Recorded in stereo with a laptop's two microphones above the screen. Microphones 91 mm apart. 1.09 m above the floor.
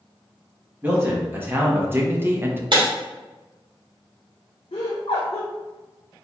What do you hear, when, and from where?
0.8 s a man speaking: 20° right (ahead or behind), 1.5 m; by 2.6 s 25° right (ahead or behind), 0.6 m
2.7 s breaking glass: 55° right (ahead or behind), 1.4 m
4.7 s laughter: 75° left (ahead or behind), 0.7 m